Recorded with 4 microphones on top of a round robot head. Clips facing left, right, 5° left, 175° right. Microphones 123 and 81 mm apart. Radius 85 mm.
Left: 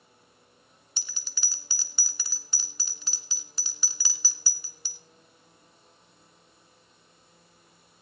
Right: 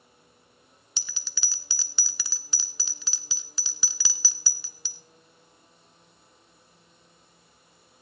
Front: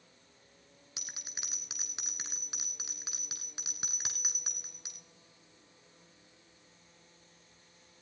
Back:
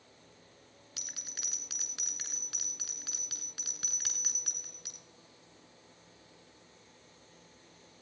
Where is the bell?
75° right, 1.0 m.